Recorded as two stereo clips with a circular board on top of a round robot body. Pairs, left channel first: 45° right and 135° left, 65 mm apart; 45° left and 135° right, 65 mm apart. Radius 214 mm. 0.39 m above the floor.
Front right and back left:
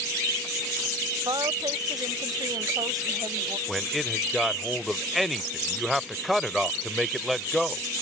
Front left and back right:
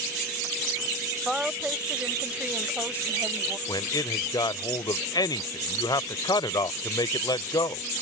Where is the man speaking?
45° left.